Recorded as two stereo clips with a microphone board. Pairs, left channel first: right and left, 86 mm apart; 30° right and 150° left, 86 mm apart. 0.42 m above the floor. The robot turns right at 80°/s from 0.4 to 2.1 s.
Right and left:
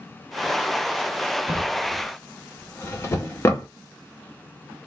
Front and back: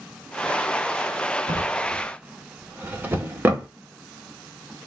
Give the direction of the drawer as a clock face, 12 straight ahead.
7 o'clock.